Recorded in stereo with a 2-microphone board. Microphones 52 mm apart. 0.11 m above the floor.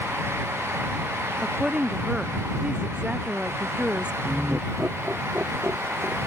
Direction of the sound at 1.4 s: 20° right (ahead or behind).